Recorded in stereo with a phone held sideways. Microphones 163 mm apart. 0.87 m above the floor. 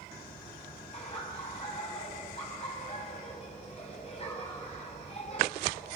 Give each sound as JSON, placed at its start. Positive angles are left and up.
{"t": 0.9, "sound": "laughter", "side_deg": 40, "distance_m": 5.0}